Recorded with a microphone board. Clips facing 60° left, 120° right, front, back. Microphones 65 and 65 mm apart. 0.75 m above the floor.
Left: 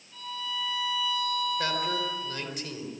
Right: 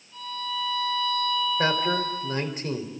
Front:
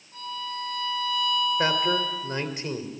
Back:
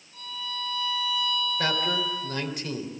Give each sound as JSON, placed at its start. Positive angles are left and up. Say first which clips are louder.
{"t": 0.1, "sound": "a violin", "louder": "right 4 dB, front 3 dB", "azimuth_deg": -25, "distance_m": 9.0}
{"t": 1.6, "sound": "a man speaking", "louder": "right 5 dB, front 3 dB", "azimuth_deg": -60, "distance_m": 3.0}